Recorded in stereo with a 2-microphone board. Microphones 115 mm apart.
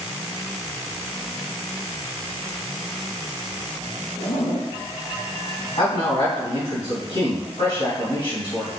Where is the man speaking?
65° left (ahead or behind), 1.9 m.